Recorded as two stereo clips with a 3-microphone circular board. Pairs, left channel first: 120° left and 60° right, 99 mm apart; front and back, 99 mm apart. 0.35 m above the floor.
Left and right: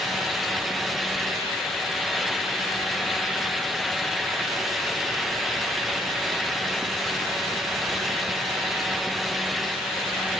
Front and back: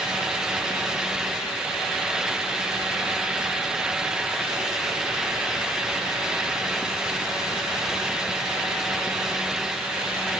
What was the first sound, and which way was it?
Only background noise.